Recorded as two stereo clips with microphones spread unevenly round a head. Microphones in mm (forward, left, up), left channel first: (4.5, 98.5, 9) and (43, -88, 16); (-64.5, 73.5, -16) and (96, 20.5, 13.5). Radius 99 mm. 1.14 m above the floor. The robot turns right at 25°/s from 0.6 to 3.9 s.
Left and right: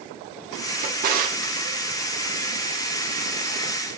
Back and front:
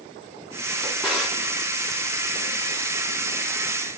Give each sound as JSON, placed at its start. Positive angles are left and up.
{"t": 0.8, "sound": "a drawer", "azimuth_deg": -100, "distance_m": 0.8}